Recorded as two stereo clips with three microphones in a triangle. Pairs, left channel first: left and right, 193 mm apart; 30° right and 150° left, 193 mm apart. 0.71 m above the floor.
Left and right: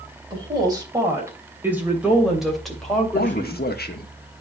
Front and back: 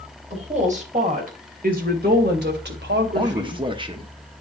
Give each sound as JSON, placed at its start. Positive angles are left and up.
{"t": 0.3, "sound": "a woman speaking", "azimuth_deg": -155, "distance_m": 3.0}
{"t": 3.1, "sound": "a man speaking", "azimuth_deg": 95, "distance_m": 1.0}